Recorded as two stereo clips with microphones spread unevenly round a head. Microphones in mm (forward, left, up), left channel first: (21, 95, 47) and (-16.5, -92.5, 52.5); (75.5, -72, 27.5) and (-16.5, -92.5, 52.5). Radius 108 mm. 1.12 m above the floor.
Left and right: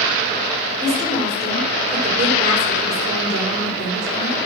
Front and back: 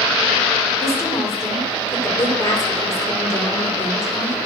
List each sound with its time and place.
0.8 s a woman speaking: 45° right, 3.5 m